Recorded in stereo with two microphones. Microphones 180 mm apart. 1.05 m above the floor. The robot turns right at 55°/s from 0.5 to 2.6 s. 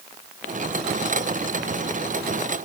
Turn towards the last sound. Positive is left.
No sound to turn to.